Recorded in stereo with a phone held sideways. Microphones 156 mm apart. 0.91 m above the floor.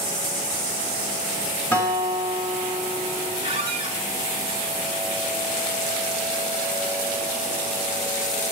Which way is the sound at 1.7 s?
15° left (ahead or behind).